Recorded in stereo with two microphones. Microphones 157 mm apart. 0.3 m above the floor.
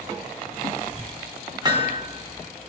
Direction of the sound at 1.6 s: 30° right (ahead or behind).